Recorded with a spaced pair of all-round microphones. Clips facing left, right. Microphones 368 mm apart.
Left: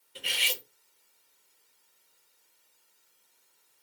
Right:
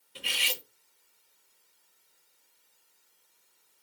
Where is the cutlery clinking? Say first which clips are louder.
Left 1 dB; 10° right (ahead or behind), 1.6 m.